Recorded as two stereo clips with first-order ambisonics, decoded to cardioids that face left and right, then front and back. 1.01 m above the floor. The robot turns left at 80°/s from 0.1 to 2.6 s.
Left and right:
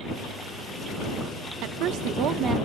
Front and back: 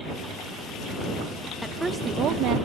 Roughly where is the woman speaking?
Right.